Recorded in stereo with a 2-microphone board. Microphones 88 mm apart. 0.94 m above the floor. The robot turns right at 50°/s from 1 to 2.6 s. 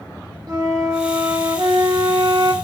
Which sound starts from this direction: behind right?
A flute, at 0.5 s.